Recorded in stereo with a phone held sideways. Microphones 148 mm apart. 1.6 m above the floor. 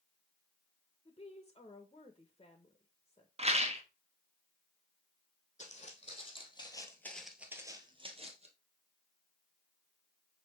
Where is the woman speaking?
30° left (ahead or behind), 1.3 m.